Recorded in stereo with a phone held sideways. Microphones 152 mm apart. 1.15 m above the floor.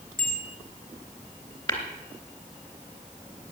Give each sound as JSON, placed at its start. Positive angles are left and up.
{"t": 0.2, "sound": "a bicycle bell", "side_deg": 70, "distance_m": 4.5}
{"t": 1.7, "sound": "tapping", "side_deg": 30, "distance_m": 3.0}